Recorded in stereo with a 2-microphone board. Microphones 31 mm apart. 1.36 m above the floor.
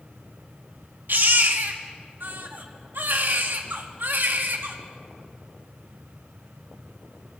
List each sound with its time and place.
1.1 s a baby crying: 75° right (ahead or behind), 2 m